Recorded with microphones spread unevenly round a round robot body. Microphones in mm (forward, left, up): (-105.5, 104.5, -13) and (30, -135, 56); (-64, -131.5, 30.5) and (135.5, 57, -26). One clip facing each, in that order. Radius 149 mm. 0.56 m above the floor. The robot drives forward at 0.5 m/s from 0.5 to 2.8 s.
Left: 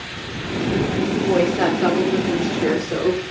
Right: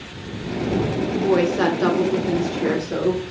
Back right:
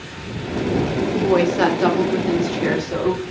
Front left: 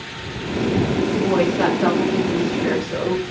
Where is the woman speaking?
110° right, 0.7 m; by 3.2 s 165° right, 1.2 m.